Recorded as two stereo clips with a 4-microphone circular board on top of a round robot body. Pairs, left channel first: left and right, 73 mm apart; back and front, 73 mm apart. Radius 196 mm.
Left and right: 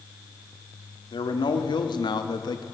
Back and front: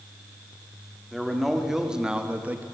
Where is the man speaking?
90° left, 2.5 m; by 2.6 s 70° left, 1.4 m.